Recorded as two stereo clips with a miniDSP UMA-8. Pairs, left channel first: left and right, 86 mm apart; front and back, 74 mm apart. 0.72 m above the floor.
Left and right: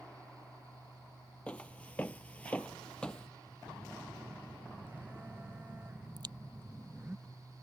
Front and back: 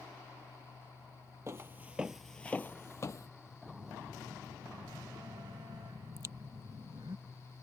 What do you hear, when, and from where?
1.5 s footsteps: 160° left; by 3.3 s 15° left
3.6 s a phone buzzing: 155° right
6.2 s a crack: 125° right